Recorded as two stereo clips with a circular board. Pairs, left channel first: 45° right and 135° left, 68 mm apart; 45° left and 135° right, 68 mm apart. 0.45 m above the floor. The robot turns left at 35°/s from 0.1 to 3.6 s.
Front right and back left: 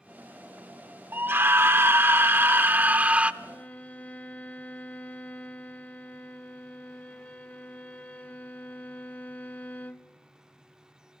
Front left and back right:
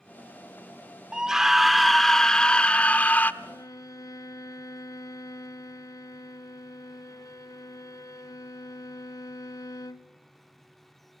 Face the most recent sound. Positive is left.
turn(degrees=20)